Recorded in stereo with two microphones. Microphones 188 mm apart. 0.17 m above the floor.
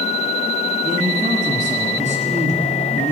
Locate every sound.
0.8 s a man speaking: 40° right (ahead or behind), 1.9 m